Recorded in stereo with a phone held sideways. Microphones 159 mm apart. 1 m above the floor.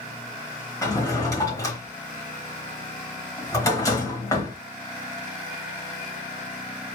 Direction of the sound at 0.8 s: 20° left (ahead or behind).